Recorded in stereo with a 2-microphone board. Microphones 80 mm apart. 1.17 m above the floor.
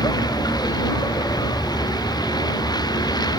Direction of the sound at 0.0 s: 60° left (ahead or behind).